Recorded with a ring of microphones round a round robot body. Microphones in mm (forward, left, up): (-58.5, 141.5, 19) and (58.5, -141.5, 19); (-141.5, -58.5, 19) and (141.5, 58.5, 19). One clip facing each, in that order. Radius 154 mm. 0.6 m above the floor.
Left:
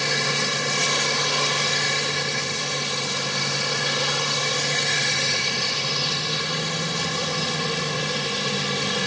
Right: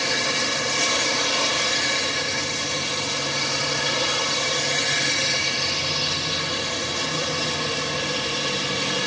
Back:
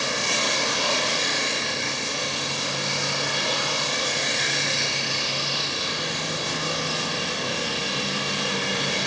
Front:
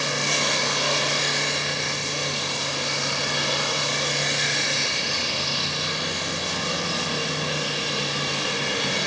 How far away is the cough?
I don't hear a cough.